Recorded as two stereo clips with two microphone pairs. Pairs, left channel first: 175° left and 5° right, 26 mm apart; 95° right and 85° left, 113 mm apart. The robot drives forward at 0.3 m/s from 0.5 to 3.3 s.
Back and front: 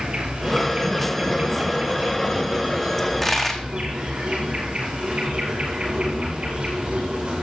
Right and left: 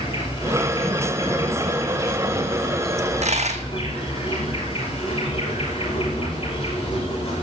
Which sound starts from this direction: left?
A dropped coin, at 3.0 s.